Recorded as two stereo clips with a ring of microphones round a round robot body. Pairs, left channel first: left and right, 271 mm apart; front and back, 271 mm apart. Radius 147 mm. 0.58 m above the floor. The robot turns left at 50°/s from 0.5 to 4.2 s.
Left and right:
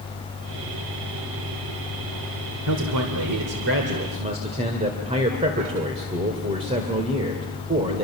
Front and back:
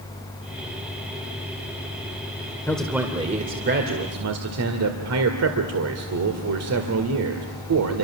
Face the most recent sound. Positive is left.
turn(degrees=-160)